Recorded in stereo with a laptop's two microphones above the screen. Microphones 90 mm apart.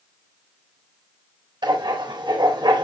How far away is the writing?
About 4 m.